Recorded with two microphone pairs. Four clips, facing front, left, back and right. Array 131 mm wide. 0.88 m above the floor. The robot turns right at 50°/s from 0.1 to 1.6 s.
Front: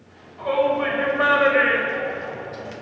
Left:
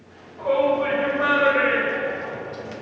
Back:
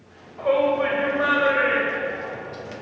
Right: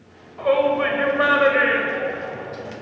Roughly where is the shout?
Behind right.